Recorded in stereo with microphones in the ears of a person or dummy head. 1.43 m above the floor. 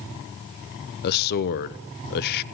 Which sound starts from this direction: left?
A man speaking, at 1.0 s.